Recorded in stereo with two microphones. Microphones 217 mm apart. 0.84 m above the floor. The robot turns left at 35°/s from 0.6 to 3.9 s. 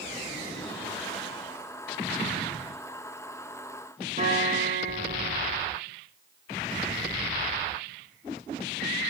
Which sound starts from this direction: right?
A guitar, at 4.2 s.